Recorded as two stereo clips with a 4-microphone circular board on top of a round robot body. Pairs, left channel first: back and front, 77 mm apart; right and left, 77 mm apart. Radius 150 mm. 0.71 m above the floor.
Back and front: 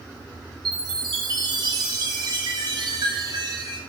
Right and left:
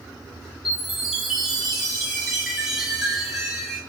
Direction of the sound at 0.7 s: Straight ahead.